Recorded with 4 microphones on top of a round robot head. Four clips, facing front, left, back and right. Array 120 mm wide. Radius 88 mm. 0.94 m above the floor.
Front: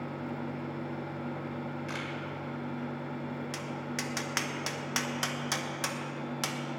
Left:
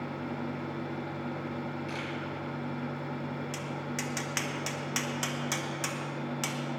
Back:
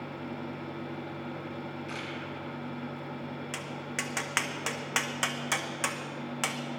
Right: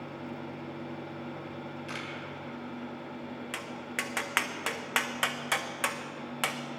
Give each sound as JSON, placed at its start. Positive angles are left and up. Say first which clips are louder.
{"t": 1.9, "sound": "a camera shutter", "louder": "left 2 dB, front 1 dB", "azimuth_deg": -35, "distance_m": 1.6}
{"t": 3.5, "sound": "tapping", "louder": "left 2 dB, front 1 dB", "azimuth_deg": -115, "distance_m": 0.8}